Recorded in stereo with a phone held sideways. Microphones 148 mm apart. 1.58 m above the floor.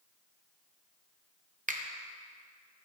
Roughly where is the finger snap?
Right.